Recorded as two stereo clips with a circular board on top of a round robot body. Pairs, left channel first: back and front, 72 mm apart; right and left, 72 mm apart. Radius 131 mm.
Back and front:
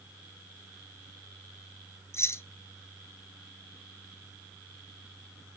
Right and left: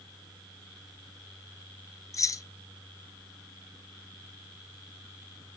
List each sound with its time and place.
2.1 s keys jangling: 130° right, 0.7 m